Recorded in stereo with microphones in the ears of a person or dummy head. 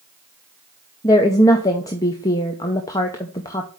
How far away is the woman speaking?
About 0.6 m.